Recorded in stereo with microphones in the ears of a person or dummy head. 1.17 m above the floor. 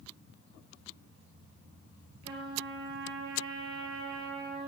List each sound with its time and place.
2.2 s a trumpet: 60° right (ahead or behind), 3.5 m